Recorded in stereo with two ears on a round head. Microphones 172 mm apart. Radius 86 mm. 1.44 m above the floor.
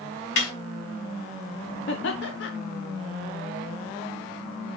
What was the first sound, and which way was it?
A snare drum, 70° left (ahead or behind).